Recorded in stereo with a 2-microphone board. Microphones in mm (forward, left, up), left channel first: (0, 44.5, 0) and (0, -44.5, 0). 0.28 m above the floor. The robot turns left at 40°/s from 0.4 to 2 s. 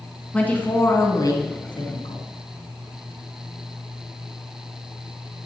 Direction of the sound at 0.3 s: 165° left.